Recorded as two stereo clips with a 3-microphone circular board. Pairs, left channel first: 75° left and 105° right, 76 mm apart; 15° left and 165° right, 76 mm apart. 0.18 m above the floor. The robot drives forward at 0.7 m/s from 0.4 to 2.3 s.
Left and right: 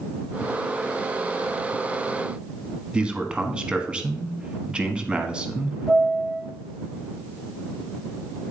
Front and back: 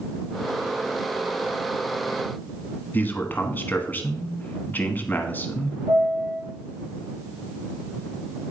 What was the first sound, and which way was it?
A man speaking, 35° right.